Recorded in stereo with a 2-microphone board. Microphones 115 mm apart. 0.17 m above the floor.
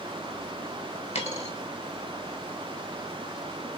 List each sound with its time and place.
1.1 s a dropped coin: 65° left (ahead or behind), 0.9 m